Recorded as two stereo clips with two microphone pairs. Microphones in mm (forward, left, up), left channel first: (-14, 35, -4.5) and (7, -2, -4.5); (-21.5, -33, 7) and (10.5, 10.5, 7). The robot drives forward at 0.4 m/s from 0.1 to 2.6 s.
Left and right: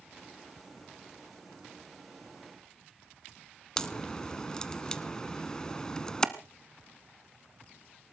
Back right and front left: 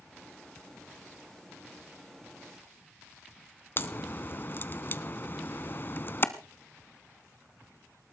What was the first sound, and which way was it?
A crack, 170° right.